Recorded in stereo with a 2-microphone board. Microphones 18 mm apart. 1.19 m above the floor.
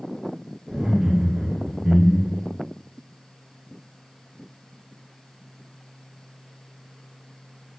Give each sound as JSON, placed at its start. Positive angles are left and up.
{"t": 0.7, "sound": "laughter", "side_deg": -65, "distance_m": 1.5}